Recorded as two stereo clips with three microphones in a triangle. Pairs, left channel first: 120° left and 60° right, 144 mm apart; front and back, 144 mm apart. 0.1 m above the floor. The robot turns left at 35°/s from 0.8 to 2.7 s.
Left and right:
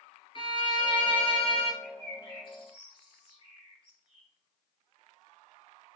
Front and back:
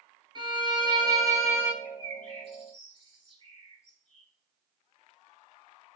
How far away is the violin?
About 0.8 m.